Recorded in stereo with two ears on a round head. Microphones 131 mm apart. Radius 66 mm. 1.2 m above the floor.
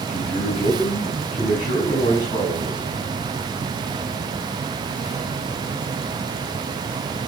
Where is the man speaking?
50° left (ahead or behind), 7 m; by 2.8 s 25° left (ahead or behind), 8 m.